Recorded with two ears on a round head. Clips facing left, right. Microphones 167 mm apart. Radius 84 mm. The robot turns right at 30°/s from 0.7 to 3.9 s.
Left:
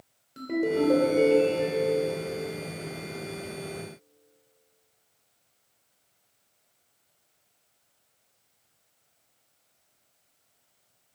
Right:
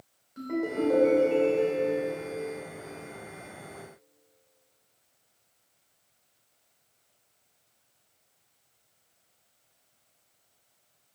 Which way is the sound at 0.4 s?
40° left.